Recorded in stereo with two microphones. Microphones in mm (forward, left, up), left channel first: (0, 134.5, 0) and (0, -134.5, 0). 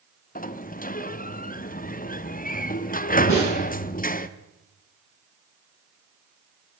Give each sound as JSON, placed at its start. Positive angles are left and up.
{"t": 0.3, "sound": "a sliding door", "side_deg": 30, "distance_m": 0.6}
{"t": 3.3, "sound": "a snare drum", "side_deg": 85, "distance_m": 6.0}